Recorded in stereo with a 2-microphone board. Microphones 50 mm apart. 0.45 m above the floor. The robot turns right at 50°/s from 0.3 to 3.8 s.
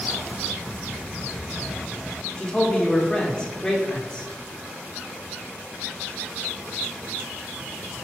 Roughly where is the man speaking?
Centre.